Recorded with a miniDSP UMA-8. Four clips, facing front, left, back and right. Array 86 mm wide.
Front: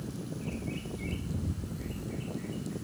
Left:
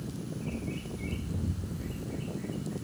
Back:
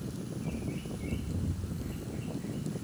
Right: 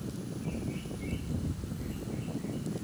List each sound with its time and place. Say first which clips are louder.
0.3 s a bird: even, back 2 dB; 15° left, 9 m